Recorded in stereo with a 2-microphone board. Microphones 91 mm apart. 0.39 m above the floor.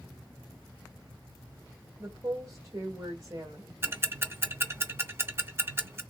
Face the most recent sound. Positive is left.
turn(degrees=-30)  # may be behind; listen again after turning